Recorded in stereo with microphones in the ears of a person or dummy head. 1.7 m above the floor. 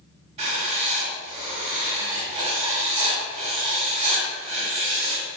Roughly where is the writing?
Right.